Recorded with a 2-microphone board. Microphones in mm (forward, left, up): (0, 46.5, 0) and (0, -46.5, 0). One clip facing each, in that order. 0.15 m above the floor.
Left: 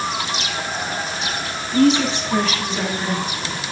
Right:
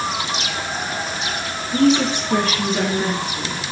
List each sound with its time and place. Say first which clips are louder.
1.7 s a woman speaking: even; 55° right (ahead or behind), 3 m; by 3.6 s 35° right (ahead or behind), 3 m